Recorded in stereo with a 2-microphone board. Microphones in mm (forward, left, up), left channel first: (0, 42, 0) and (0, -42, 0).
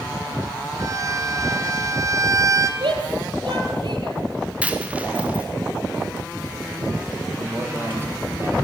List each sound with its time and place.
0.8 s a violin: 45° right (ahead or behind), 1.7 m
2.8 s a shout: 70° right (ahead or behind), 5 m
4.6 s a dropped coin: 15° right (ahead or behind), 2.5 m
7.3 s a man speaking: 30° right (ahead or behind), 6.5 m